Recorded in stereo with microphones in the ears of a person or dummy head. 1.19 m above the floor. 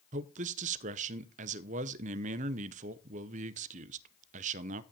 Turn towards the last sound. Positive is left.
turn(degrees=-45)  # may be behind; listen again after turning